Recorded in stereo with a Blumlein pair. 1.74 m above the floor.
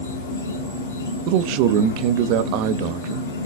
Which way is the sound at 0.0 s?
70° left.